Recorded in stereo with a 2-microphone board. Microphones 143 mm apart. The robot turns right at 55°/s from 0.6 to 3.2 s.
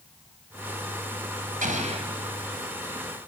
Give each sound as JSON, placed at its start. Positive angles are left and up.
{"t": 1.6, "sound": "an explosion", "side_deg": -70, "distance_m": 3.0}